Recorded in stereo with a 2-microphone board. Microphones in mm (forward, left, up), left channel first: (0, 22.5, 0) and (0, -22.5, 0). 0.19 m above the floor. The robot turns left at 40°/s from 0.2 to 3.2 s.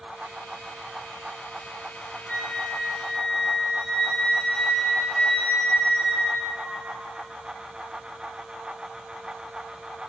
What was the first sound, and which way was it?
A flute, 45° left.